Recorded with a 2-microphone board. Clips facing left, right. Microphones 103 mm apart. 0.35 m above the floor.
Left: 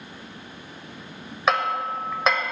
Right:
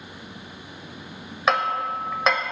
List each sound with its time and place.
1.5 s hammering: centre (ahead or behind), 0.8 m